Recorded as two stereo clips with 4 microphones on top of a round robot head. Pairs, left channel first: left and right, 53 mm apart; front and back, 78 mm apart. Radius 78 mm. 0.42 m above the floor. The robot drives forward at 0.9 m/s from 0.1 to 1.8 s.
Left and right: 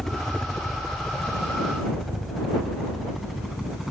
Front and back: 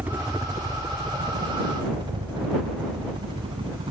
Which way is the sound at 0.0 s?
160° left.